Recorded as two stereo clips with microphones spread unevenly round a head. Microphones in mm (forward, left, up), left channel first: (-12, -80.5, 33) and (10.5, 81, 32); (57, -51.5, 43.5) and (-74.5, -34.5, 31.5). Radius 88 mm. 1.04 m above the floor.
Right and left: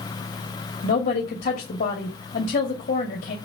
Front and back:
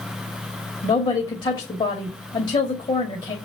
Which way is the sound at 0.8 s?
60° right.